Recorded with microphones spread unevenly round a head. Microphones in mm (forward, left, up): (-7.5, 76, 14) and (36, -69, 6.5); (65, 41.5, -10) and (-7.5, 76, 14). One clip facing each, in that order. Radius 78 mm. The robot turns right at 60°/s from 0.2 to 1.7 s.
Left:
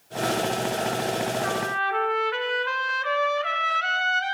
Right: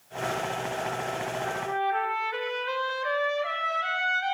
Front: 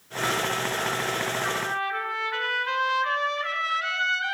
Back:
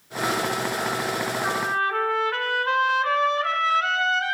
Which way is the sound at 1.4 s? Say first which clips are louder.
Left 1 dB, back 4 dB; 110° left.